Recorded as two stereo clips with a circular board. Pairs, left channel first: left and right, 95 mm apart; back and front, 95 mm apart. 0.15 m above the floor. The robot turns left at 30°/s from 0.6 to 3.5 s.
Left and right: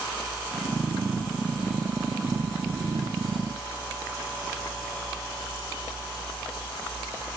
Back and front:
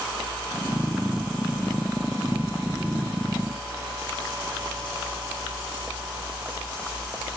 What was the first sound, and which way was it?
Only background noise.